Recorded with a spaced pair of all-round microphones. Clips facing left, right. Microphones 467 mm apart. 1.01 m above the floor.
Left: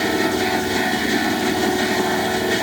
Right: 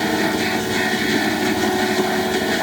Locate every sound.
Only background noise.